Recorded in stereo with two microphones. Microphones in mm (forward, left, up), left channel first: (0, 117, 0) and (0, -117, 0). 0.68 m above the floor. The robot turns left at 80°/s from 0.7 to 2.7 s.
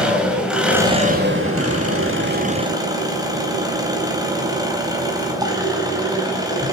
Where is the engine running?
5° right, 3.5 m; by 6.7 s 165° right, 3.5 m.